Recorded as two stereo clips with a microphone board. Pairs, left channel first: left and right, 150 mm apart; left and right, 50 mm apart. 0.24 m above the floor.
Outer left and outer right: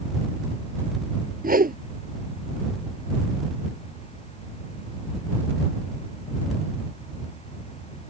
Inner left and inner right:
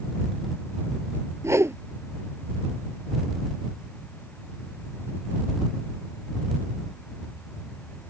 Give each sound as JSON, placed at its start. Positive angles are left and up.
{"t": 1.4, "sound": "a whoosh", "side_deg": -75}